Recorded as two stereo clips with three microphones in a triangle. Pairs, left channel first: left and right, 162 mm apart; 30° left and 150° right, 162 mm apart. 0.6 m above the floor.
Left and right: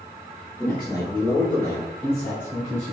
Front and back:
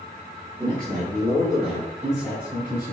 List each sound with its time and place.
0.6 s a man speaking: 150° left, 1.3 m; by 2.9 s 170° left, 2.5 m